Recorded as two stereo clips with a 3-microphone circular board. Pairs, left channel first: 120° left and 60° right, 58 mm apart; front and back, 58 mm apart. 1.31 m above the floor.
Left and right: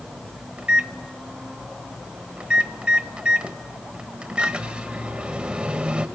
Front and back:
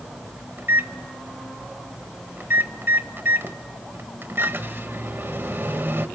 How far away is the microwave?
About 1.2 m.